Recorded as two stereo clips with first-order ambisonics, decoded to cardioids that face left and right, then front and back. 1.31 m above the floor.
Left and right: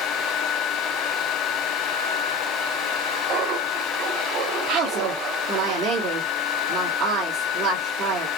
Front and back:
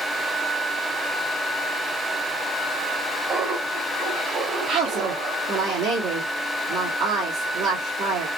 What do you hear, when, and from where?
3.3 s laughter: 120° right, 1.8 m
4.7 s a woman speaking: 140° right, 1.4 m